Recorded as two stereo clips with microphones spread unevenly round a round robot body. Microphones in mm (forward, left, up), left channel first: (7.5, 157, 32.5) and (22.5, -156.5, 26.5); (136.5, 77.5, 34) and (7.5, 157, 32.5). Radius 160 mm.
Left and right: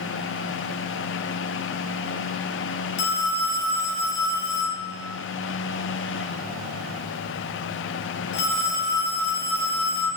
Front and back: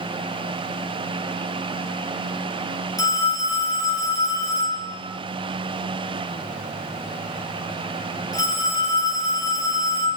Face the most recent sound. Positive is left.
turn(degrees=35)